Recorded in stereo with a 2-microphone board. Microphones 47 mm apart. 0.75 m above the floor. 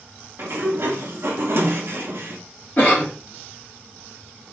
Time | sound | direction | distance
0.4 | a sliding door | 60° right (ahead or behind) | 0.5 m
2.8 | a cough | 35° left (ahead or behind) | 1.3 m